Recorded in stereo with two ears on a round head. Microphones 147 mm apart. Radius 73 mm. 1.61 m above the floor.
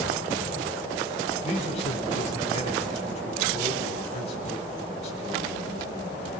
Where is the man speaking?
40° left (ahead or behind), 8.5 m.